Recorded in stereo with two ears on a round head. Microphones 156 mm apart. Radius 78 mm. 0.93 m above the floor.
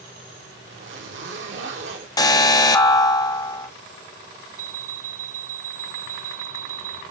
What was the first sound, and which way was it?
A zipper, 80° right.